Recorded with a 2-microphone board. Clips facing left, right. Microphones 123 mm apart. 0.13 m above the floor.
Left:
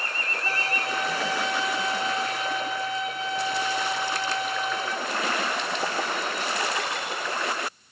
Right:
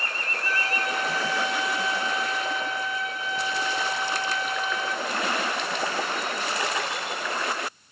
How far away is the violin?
About 10 m.